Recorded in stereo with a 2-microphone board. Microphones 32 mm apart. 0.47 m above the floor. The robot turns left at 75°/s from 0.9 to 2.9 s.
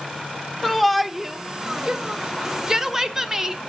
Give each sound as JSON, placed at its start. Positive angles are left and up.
{"t": 0.6, "sound": "a shout", "side_deg": 0, "distance_m": 0.8}